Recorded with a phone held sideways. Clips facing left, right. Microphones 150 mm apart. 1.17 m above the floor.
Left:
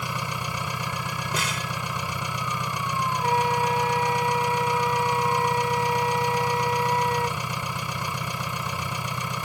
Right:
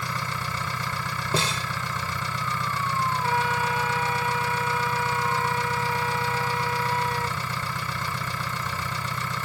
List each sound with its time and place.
0.0 s an engine running: 15° left (ahead or behind)
1.3 s a snare drum: 30° right (ahead or behind)
3.2 s a flute: 30° left (ahead or behind)